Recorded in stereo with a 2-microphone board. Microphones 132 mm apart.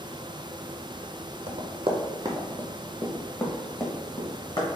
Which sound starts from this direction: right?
Running footsteps, at 1.5 s.